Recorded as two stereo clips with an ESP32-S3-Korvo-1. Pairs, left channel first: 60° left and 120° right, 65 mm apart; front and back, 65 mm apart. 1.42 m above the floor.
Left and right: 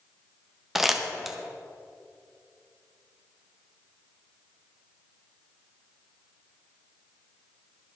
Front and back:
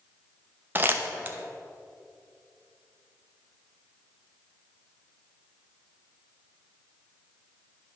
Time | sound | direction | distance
0.8 | crumpling | 160° left | 0.7 m